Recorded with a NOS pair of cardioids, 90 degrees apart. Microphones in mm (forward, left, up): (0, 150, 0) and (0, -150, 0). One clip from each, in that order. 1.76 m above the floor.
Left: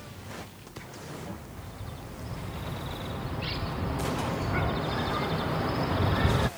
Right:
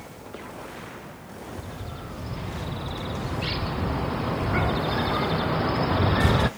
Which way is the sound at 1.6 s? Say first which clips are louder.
Right 6 dB; 25° right.